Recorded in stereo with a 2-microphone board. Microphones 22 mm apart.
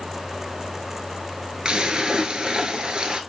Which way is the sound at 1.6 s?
50° right (ahead or behind).